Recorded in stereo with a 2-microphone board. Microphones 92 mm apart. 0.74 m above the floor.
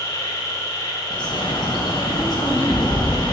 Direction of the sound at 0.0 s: 35° left (ahead or behind).